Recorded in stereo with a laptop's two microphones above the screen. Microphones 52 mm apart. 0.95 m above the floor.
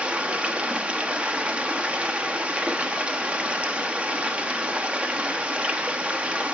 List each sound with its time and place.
0.0 s running water: 25° right (ahead or behind), 1.1 m